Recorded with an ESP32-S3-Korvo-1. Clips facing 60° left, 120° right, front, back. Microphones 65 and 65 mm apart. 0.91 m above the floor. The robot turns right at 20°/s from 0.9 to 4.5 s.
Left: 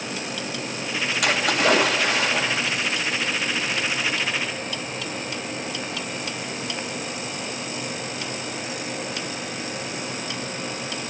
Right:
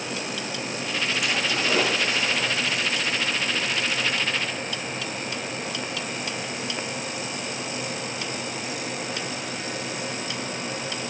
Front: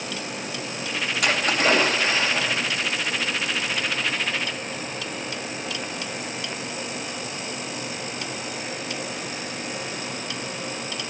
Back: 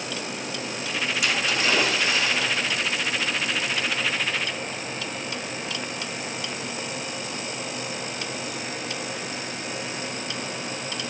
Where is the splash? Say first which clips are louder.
Left 9 dB, front 5 dB; 40° left, 3 m; by 2.7 s 70° left, 3 m.